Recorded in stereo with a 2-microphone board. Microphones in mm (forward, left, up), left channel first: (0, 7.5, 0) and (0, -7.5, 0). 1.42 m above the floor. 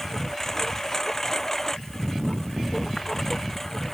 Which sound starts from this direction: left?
A lawn mower, at 0.0 s.